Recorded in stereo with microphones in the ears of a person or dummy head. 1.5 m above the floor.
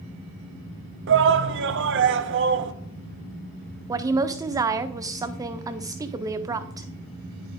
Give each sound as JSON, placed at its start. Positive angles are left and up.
{"t": 1.1, "sound": "a shout", "side_deg": -60, "distance_m": 0.7}
{"t": 3.9, "sound": "a woman speaking", "side_deg": -15, "distance_m": 0.6}